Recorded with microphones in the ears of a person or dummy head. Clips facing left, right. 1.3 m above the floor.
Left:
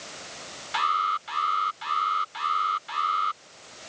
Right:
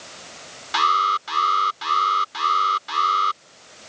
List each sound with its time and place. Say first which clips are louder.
0.7 s an alarm: right 6 dB; 55° right (ahead or behind)